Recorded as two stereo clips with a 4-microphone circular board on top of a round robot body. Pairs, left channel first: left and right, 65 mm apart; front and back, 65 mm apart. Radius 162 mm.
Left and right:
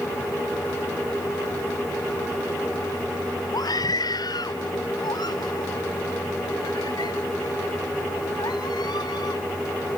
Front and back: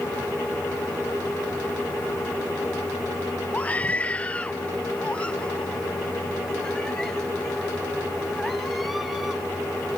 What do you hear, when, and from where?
3.5 s a scream: 70° left; by 9.4 s 95° left